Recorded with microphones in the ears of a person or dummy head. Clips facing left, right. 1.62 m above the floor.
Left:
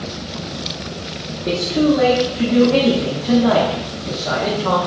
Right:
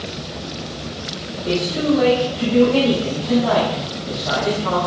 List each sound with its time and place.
1.5 s a man speaking: 35° left (ahead or behind), 0.9 m